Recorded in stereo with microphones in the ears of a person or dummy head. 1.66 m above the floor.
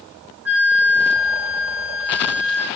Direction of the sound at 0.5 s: 5° right (ahead or behind).